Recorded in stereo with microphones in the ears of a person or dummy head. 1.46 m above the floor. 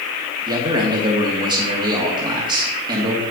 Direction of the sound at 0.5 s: 20° right (ahead or behind).